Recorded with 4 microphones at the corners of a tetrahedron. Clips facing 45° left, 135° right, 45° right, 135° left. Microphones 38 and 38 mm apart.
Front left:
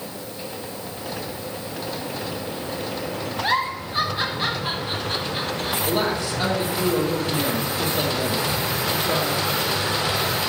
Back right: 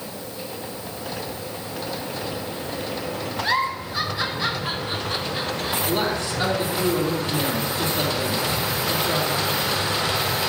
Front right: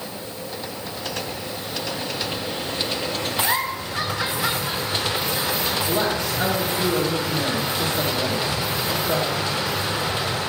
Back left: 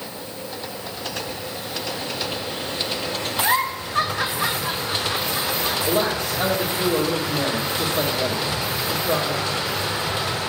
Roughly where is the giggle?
Left.